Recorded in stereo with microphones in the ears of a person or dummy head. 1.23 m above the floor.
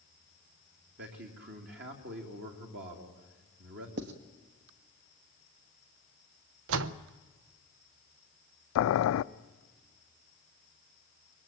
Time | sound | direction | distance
1.0 | a man speaking | 55° right (ahead or behind) | 3 m
4.0 | writing | 55° right (ahead or behind) | 1.3 m
6.7 | a door slam | 70° right (ahead or behind) | 0.7 m
8.8 | boiling | 75° left (ahead or behind) | 0.6 m